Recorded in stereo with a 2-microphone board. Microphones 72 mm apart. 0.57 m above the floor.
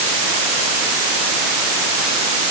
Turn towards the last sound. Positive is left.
No sound to turn to.